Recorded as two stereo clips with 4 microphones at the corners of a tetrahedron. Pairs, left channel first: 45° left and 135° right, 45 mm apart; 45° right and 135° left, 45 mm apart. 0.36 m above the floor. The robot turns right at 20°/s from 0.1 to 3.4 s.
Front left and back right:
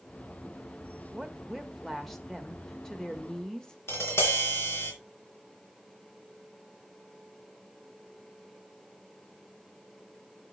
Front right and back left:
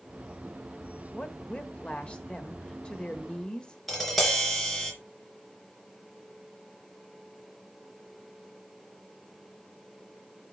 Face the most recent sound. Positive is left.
turn(degrees=40)